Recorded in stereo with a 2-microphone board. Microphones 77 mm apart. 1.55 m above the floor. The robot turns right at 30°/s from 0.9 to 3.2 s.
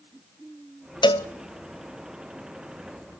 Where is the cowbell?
80° left, 0.7 m; by 1.3 s 85° left, 0.7 m.